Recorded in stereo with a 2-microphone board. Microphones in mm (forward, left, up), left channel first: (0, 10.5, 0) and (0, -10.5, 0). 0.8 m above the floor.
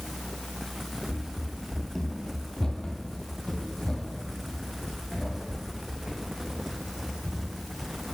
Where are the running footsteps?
20° right (ahead or behind), 0.8 m; by 8.1 s 50° left (ahead or behind), 4.5 m.